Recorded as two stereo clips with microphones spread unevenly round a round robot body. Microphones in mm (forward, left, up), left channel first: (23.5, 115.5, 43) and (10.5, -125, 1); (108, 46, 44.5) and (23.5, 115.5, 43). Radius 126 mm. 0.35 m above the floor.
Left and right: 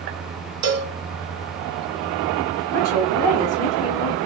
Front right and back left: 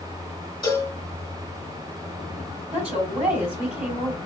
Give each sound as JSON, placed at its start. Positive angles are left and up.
{"t": 0.6, "sound": "a cowbell", "azimuth_deg": -130, "distance_m": 1.9}
{"t": 2.7, "sound": "a woman speaking", "azimuth_deg": 165, "distance_m": 3.0}